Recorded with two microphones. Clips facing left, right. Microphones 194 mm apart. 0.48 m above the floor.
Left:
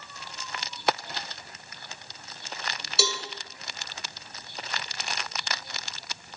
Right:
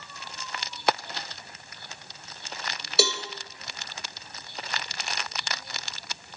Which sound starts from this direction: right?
A cowbell, at 3.0 s.